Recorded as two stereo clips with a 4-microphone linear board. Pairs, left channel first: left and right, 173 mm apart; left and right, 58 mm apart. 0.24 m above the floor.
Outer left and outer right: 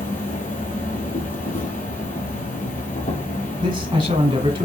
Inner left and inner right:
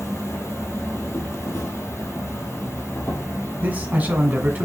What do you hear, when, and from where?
0.0 s an insect: 50° left (ahead or behind), 1.5 m
3.6 s a man speaking: 30° right (ahead or behind), 1.5 m